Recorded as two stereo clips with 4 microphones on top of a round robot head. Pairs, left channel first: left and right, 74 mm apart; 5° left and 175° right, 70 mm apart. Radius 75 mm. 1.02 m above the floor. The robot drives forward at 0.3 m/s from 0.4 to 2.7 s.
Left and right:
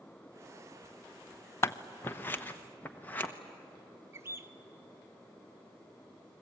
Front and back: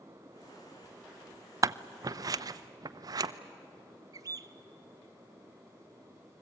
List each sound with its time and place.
1.6 s scissors: 145° left, 0.6 m; by 3.3 s 160° left, 0.9 m
4.1 s a bird: 145° right, 1.0 m